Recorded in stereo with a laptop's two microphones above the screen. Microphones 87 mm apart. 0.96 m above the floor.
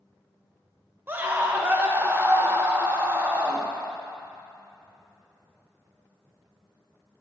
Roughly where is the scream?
Right.